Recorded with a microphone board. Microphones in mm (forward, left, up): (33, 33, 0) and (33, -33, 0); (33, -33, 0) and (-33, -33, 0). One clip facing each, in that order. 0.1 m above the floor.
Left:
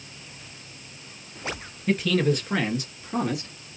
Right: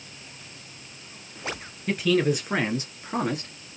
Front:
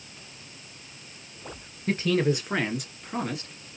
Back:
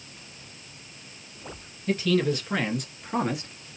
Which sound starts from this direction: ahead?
A man speaking, at 1.9 s.